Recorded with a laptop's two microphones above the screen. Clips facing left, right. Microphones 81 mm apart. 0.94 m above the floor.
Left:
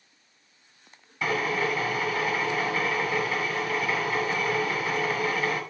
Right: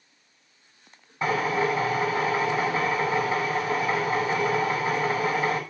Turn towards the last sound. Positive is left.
turn(degrees=-30)  # may be behind; listen again after turning